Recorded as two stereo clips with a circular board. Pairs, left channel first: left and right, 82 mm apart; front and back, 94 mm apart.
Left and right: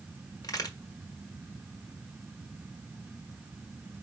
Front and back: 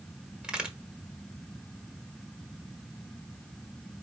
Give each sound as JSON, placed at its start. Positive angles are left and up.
{"t": 0.4, "sound": "a crack", "azimuth_deg": 100, "distance_m": 1.2}